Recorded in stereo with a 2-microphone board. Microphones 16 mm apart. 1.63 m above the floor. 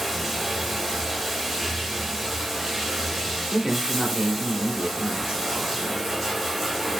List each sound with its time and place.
0.0 s running water: 5° left (ahead or behind), 1.5 m
3.5 s a man speaking: 70° right (ahead or behind), 1.1 m